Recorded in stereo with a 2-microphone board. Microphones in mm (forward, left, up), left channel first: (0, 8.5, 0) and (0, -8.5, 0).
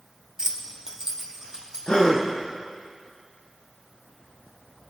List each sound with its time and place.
0.4 s keys jangling: 30° right (ahead or behind), 1.3 m
1.9 s a gasp: 65° left (ahead or behind), 1.7 m